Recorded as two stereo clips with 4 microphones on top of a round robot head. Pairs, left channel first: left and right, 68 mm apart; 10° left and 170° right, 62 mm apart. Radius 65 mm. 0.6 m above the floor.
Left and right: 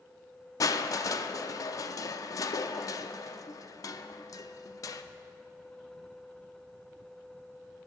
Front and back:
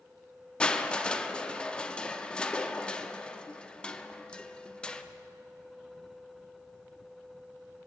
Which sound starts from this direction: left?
Crushing, at 0.6 s.